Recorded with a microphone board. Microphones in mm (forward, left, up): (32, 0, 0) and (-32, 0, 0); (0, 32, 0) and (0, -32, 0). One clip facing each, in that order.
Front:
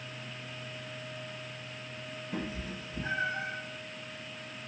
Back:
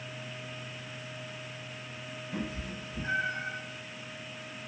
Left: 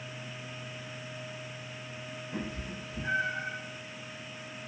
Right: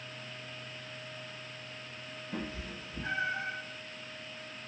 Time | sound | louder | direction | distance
2.3 | a cat meowing | even, left 1 dB | 60° right | 1.9 m